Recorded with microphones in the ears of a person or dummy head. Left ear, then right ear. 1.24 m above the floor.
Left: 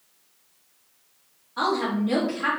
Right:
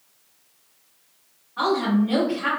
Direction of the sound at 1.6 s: 75° left (ahead or behind).